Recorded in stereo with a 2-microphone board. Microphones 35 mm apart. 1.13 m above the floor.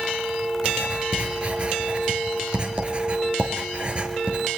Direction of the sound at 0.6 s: 30° right (ahead or behind).